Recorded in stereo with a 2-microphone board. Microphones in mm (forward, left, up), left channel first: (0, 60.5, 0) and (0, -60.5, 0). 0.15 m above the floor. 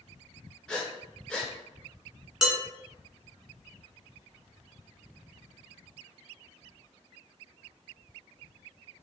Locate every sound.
0.7 s breathing: 5° left (ahead or behind), 0.7 m
2.4 s dishes clattering: 5° right (ahead or behind), 1.1 m